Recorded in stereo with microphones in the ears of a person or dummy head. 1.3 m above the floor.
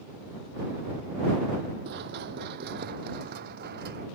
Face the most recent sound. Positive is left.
turn(degrees=-55)  # may be behind; listen again after turning